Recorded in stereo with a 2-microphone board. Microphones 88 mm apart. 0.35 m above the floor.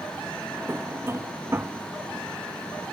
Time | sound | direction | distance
0.5 | a drawer | 25° right (ahead or behind) | ?